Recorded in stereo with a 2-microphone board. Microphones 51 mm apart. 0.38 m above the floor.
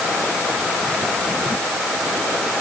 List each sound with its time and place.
Only background noise.